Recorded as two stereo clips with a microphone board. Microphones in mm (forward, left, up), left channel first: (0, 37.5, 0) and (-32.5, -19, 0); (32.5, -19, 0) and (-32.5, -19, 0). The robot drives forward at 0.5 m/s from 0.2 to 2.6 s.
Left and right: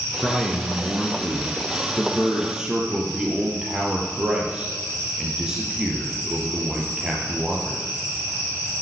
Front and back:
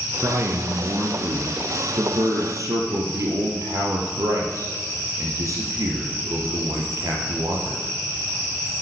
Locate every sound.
0.2 s a man speaking: 140° left, 1.6 m; by 7.8 s 165° left, 2.5 m